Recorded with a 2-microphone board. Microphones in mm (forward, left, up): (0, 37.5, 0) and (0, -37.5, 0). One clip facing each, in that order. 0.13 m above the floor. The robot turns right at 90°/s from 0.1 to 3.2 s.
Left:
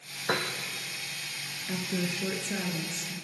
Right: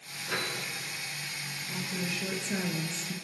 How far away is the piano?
About 2.5 m.